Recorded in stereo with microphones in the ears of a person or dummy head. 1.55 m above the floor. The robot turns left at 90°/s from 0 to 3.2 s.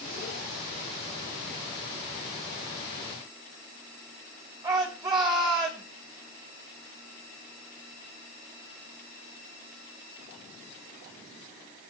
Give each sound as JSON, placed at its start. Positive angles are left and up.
{"t": 4.6, "sound": "a shout", "side_deg": -20, "distance_m": 6.0}